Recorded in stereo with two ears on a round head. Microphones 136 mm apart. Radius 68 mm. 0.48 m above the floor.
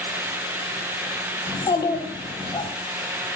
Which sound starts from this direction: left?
A child speaking, at 1.5 s.